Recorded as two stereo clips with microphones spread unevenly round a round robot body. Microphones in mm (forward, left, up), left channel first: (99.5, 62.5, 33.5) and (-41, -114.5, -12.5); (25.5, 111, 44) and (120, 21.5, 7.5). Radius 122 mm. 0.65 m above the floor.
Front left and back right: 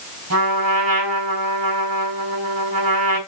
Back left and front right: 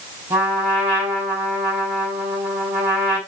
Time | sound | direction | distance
0.3 | a trumpet | 115° right | 5 m